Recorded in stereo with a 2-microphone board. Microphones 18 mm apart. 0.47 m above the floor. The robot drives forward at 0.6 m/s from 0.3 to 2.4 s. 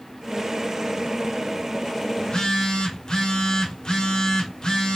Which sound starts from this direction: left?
A phone buzzing, at 2.2 s.